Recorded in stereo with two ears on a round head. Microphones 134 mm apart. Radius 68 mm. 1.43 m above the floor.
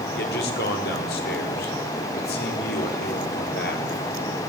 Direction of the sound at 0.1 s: 80° left.